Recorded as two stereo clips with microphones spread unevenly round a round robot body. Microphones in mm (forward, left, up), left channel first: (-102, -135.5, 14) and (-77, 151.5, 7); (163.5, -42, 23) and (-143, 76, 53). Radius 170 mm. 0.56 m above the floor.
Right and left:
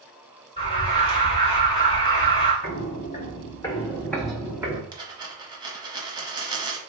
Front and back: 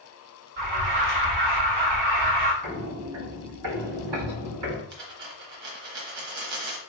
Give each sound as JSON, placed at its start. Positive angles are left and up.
{"t": 0.6, "sound": "an alarm", "azimuth_deg": -170, "distance_m": 2.0}
{"t": 2.6, "sound": "footsteps", "azimuth_deg": -145, "distance_m": 1.6}
{"t": 4.9, "sound": "a dropped coin", "azimuth_deg": 160, "distance_m": 1.1}